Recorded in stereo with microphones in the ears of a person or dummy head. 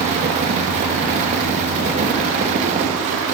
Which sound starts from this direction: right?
A fan, at 0.0 s.